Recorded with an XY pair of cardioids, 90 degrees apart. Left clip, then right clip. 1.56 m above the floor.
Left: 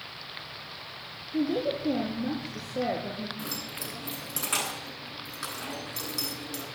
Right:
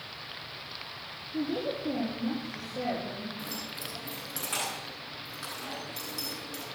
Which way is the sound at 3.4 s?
45° left.